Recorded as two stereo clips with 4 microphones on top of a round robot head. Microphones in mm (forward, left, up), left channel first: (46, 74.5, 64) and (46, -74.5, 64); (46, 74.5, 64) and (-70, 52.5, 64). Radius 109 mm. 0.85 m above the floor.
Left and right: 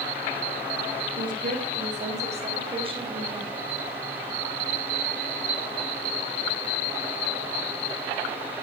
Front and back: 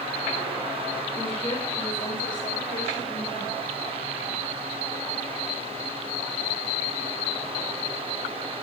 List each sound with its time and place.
1.2 s a woman speaking: 65° right, 4.5 m; by 3.6 s 25° right, 4.5 m